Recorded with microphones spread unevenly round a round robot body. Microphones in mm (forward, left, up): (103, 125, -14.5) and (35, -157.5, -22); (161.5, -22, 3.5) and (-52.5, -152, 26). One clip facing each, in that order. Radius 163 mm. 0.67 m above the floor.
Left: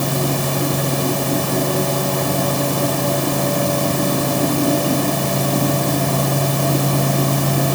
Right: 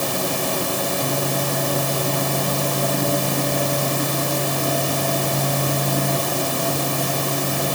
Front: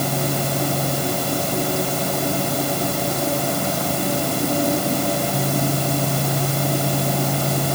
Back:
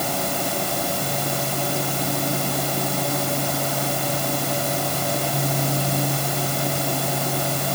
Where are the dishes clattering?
I don't hear dishes clattering.